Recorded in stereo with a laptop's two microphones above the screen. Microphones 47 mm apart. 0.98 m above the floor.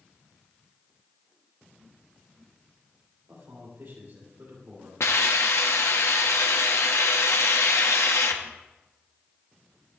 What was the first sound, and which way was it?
A man speaking, 65° right (ahead or behind).